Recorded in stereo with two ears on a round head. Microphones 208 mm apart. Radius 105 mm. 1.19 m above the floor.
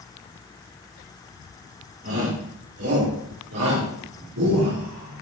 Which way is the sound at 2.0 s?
70° right (ahead or behind).